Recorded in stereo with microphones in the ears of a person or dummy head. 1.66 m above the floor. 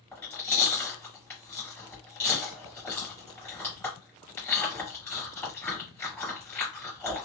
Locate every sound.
0.1 s chewing: 10° left (ahead or behind), 1.9 m